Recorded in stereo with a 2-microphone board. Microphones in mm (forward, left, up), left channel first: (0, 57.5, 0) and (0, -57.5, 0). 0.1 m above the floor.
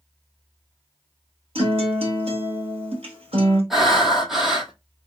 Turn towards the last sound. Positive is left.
turn(degrees=-5)  # may be behind; listen again after turning